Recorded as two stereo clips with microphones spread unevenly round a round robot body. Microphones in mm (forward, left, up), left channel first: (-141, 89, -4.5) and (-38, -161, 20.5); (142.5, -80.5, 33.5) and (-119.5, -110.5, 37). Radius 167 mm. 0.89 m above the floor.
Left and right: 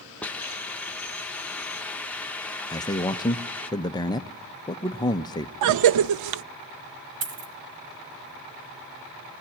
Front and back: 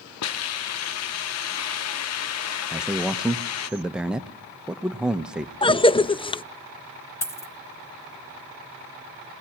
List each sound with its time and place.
0.2 s a hiss: 25° left, 0.5 m
2.7 s a man speaking: 105° left, 0.6 m
5.6 s a cough: 65° right, 0.6 m
7.2 s a dropped coin: 75° right, 2 m